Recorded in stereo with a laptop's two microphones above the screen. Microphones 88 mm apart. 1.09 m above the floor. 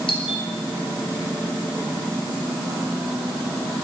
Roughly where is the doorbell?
Left.